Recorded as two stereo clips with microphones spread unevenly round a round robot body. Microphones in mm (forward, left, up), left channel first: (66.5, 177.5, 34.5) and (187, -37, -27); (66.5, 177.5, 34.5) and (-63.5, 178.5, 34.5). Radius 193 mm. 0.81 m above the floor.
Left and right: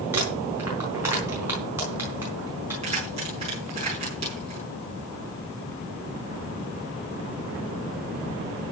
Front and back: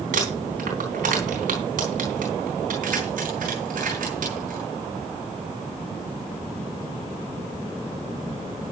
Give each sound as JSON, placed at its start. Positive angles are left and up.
{"t": 0.1, "sound": "crumpling", "azimuth_deg": -145, "distance_m": 4.0}
{"t": 2.8, "sound": "keys jangling", "azimuth_deg": -135, "distance_m": 6.0}